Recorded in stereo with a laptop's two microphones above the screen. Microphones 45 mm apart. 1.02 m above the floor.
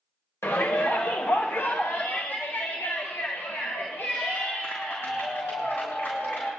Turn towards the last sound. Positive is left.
turn(degrees=85)